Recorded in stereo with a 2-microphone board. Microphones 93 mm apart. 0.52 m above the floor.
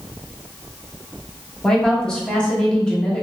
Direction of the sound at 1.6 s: 10° left (ahead or behind).